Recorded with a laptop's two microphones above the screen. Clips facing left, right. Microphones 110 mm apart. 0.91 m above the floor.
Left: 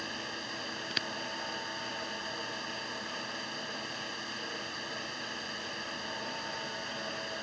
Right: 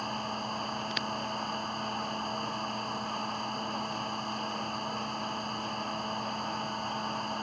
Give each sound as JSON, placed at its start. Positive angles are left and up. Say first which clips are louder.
{"t": 0.0, "sound": "a fan", "louder": "right 6 dB", "side_deg": -45}